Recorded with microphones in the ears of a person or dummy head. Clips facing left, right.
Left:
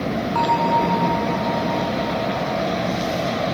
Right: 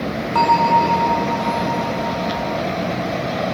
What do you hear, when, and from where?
0.3 s a bell: 60° right (ahead or behind)